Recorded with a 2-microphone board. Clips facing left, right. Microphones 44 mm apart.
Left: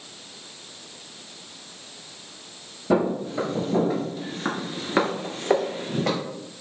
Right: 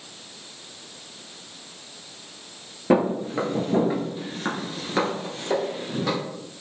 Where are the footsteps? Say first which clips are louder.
Right 2 dB; 45° right (ahead or behind), 1.0 m; by 6.2 s 55° left (ahead or behind), 1.1 m.